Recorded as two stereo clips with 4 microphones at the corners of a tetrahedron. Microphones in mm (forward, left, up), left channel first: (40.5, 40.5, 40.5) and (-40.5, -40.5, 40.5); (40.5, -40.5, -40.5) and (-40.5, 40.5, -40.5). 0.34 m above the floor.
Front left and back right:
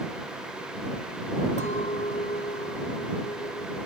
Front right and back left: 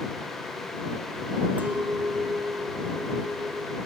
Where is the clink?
60° left.